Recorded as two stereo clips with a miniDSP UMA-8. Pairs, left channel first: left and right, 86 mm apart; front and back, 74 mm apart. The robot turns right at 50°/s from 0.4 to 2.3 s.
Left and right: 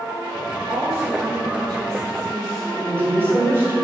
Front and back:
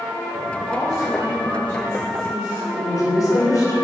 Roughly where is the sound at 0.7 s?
Right.